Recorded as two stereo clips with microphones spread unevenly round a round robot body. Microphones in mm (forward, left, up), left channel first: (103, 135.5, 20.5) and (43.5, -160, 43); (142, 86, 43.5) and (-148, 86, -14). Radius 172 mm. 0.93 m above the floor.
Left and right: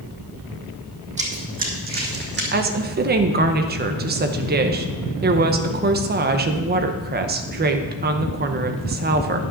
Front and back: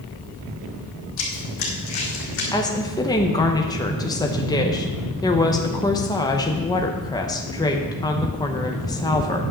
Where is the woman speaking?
85° right, 0.8 m.